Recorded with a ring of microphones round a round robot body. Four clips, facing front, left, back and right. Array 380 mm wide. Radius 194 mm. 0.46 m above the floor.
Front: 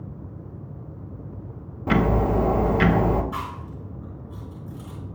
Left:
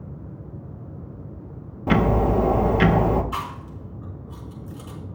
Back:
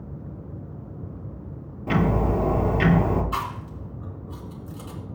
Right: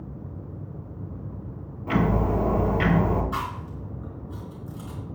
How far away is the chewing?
About 4.5 m.